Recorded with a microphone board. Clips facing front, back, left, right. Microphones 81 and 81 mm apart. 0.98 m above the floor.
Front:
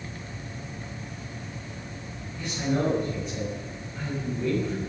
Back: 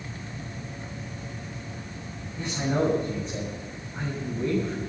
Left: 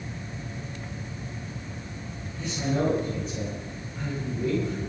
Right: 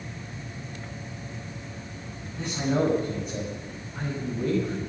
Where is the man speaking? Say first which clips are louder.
Back 1 dB, right 2 dB; 120° right, 6.5 m.